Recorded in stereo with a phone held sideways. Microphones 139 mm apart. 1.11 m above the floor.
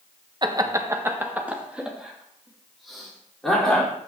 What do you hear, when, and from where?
0.4 s laughter: 30° right (ahead or behind), 1.3 m; by 3.9 s 5° left (ahead or behind), 4.5 m